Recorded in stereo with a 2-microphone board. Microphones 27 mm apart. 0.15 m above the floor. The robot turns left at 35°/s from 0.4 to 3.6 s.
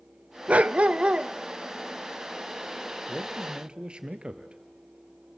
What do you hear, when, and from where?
0.5 s a dog barking: 60° right (ahead or behind), 0.6 m; by 1.3 s 40° right (ahead or behind), 0.6 m
3.1 s a man speaking: 20° right (ahead or behind), 2 m; by 4.6 s 35° right (ahead or behind), 2 m